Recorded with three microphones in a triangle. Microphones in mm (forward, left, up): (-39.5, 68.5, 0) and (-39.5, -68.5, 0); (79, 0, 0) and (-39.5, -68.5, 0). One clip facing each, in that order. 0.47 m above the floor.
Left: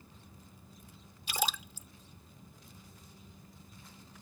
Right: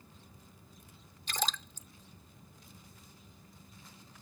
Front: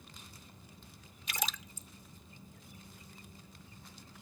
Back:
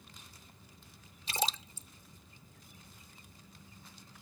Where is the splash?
165° left.